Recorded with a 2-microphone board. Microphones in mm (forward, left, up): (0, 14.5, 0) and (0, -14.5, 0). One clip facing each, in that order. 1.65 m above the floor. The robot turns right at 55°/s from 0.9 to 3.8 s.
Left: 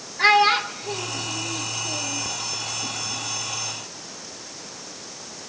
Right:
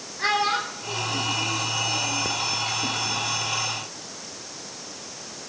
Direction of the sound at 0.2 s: 30° left (ahead or behind).